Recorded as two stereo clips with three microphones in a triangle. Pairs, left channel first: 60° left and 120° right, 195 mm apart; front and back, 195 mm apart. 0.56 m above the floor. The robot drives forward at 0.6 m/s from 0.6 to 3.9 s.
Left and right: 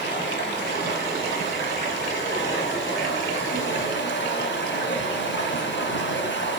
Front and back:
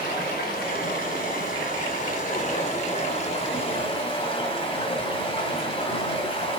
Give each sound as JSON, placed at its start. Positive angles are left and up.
{"t": 0.0, "sound": "running water", "azimuth_deg": 40, "distance_m": 4.5}